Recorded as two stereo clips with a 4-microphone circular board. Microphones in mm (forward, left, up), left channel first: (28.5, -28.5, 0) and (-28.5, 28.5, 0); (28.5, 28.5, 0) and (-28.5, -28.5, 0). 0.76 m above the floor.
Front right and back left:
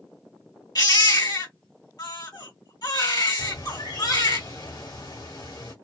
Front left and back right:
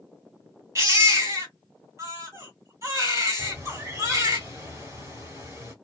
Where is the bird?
80° right, 1.4 m.